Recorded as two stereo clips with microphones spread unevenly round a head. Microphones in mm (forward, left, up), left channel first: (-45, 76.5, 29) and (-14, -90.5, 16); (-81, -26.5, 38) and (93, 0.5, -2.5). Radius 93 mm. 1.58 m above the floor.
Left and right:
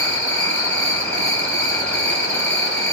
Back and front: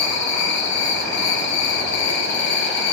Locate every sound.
0.0 s an insect: 170° left, 3 m